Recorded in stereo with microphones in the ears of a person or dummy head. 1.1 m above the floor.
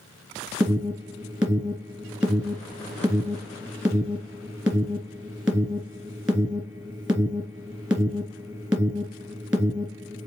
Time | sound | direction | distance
0.6 | an alarm | 10° right (ahead or behind) | 3 m